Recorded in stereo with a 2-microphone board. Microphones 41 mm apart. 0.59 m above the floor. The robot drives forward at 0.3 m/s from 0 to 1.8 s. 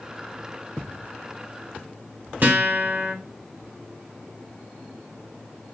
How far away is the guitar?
About 1.0 m.